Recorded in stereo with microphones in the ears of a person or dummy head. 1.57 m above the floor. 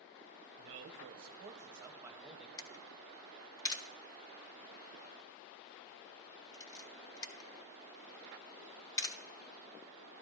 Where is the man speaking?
45° right (ahead or behind), 0.6 m; by 2.5 s 5° right (ahead or behind), 1.0 m.